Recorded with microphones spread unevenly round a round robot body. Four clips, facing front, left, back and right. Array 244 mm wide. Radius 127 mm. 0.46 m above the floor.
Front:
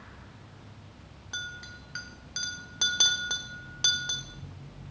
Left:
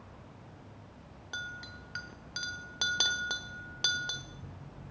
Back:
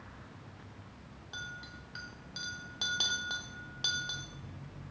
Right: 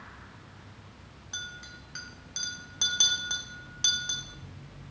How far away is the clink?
About 0.6 m.